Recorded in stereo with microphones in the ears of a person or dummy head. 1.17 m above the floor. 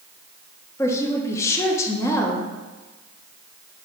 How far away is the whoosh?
No whoosh in this recording.